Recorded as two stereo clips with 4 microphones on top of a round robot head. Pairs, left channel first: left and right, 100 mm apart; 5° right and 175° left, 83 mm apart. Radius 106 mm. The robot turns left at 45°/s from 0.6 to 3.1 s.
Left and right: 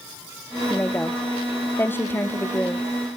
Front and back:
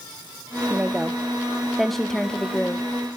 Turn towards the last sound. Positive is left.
turn(degrees=30)